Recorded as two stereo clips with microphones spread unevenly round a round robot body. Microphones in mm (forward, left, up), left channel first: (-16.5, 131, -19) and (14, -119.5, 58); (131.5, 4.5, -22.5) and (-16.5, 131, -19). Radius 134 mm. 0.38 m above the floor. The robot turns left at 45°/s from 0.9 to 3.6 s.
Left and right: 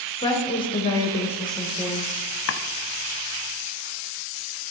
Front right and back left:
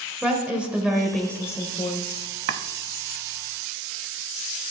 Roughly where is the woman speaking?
Ahead left.